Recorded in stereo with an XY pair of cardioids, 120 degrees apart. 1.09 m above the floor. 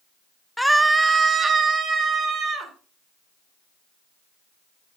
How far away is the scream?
About 0.6 m.